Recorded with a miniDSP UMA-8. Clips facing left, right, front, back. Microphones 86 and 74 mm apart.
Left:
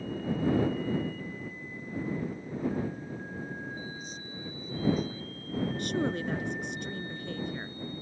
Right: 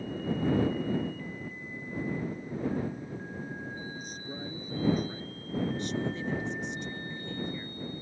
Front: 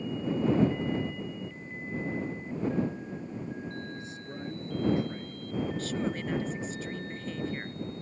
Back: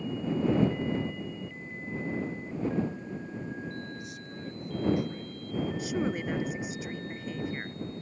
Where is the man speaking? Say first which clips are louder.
Right 2 dB, front 1 dB; 55° right.